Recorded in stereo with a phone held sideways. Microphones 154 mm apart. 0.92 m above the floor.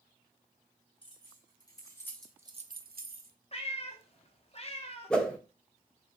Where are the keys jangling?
35° left (ahead or behind), 2 m; by 3.3 s 65° right (ahead or behind), 1.1 m.